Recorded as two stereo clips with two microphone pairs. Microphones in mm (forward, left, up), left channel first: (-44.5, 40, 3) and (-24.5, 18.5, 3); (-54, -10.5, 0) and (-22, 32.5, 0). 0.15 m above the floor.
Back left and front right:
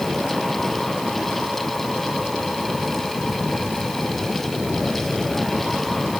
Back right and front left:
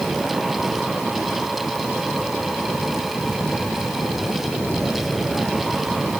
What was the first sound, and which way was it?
Only background noise.